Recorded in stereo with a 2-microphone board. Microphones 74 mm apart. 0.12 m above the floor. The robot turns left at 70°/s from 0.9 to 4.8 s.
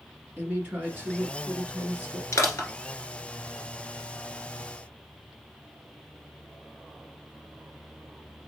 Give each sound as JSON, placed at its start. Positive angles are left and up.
{"t": 0.4, "sound": "a woman speaking", "azimuth_deg": -50, "distance_m": 1.7}
{"t": 2.3, "sound": "crushing", "side_deg": 45, "distance_m": 1.3}